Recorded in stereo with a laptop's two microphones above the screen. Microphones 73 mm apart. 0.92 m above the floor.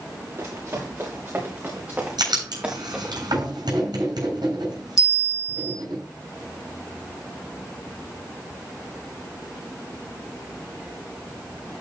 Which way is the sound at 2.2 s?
70° right (ahead or behind).